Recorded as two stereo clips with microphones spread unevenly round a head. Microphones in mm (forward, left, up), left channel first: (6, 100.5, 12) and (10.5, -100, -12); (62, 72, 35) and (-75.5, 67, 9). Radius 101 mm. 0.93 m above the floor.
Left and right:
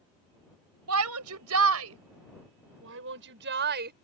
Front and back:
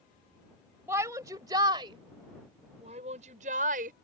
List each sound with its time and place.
0.9 s a shout: 100° right; by 3.9 s 135° right